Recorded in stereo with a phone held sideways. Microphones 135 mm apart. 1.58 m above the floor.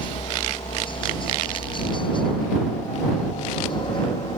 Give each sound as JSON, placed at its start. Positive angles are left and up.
{"t": 0.0, "sound": "a helicopter", "side_deg": 40}